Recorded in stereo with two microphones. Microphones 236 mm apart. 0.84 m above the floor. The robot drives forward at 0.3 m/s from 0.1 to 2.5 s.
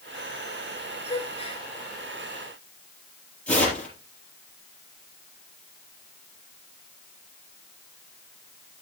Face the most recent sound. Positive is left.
turn(degrees=5)  # may be behind; listen again after turning